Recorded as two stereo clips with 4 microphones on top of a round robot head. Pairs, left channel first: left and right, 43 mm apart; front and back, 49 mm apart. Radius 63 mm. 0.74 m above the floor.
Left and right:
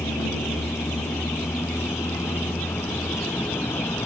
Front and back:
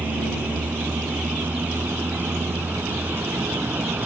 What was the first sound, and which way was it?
A vehicle, 125° left.